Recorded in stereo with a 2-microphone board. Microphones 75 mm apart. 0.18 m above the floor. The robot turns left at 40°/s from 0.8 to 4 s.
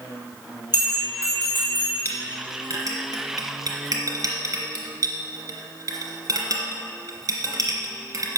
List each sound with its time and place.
0.7 s a bell: 65° left, 3 m; by 1.9 s 20° left, 3 m
2.0 s a clink: 30° right (ahead or behind), 2 m; by 8.4 s 55° right (ahead or behind), 2 m